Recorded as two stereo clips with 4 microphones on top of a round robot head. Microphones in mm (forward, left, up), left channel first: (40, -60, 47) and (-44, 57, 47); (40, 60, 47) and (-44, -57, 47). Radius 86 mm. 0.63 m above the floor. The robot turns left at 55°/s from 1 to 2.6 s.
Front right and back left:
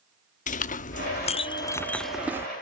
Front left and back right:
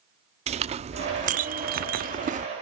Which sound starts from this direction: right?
A clink, at 0.5 s.